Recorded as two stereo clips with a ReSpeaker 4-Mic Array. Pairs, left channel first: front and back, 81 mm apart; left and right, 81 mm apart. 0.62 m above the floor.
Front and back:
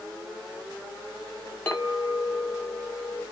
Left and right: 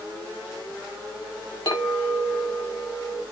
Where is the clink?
70° left, 1.1 m.